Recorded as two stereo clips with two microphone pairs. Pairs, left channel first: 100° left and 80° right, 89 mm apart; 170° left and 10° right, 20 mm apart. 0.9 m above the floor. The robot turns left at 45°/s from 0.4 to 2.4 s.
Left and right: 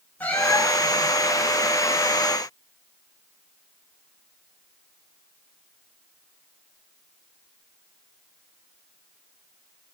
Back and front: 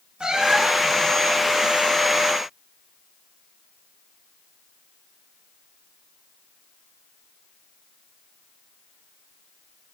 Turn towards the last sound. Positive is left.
turn(degrees=-55)